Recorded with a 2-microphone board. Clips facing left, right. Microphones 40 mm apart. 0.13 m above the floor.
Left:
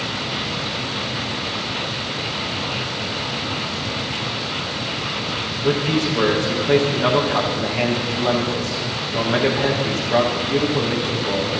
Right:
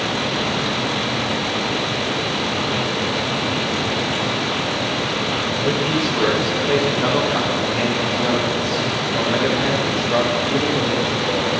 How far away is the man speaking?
About 7.5 m.